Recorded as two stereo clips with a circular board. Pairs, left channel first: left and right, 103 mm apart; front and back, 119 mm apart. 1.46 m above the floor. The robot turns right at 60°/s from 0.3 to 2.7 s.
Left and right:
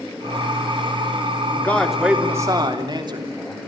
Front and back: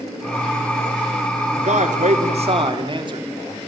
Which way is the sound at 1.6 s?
160° left.